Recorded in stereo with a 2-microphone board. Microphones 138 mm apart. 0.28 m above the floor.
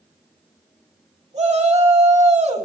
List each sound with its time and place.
1.3 s a shout: 55° right (ahead or behind), 2.5 m